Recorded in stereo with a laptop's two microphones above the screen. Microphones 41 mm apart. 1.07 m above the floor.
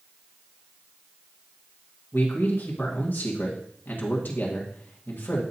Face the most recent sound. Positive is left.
turn(degrees=55)  # may be behind; listen again after turning